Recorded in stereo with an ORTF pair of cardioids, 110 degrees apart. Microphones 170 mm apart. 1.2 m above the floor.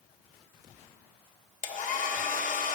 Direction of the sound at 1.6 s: 50° left.